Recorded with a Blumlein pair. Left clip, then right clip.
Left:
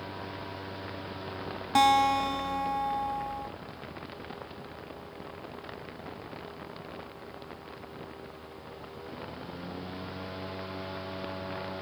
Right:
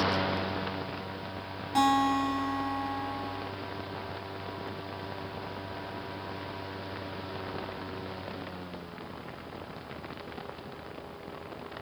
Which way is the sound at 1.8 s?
25° left.